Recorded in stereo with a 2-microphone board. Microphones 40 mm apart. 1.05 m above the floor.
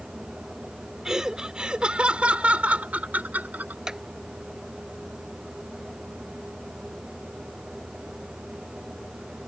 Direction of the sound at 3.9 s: 15° right (ahead or behind).